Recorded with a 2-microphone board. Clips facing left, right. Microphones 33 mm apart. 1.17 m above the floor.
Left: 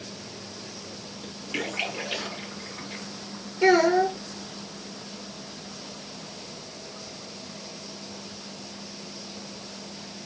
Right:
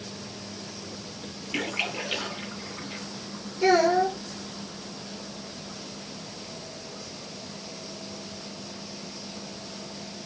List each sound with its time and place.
1.5 s a splash: 10° right (ahead or behind), 1.9 m
3.6 s a child speaking: 25° left (ahead or behind), 0.9 m